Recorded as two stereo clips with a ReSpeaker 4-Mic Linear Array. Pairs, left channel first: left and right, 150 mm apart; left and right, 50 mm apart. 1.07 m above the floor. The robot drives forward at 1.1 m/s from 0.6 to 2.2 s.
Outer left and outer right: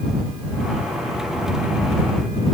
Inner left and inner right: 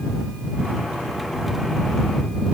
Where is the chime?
I don't hear a chime.